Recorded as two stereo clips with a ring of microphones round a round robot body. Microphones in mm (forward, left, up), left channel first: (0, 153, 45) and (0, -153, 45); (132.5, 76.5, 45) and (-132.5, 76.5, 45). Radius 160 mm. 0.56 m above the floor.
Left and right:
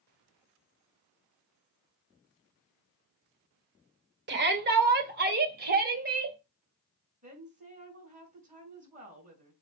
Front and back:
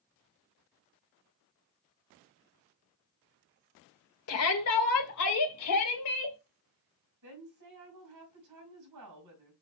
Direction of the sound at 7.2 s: 155° right.